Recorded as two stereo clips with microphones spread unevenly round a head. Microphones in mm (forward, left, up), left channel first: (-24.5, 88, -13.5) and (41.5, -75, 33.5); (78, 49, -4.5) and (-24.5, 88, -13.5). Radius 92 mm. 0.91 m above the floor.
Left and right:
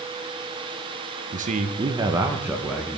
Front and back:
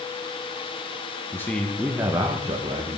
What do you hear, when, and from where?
1.3 s a man speaking: 80° right, 0.7 m; by 3.0 s 175° right, 1.0 m